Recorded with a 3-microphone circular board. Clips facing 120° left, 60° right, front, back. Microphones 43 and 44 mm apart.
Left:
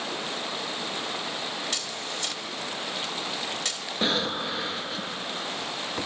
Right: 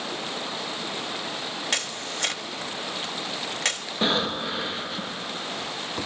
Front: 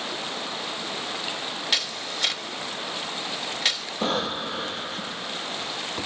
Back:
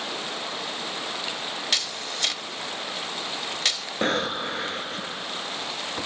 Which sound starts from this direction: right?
A camera shutter, at 1.7 s.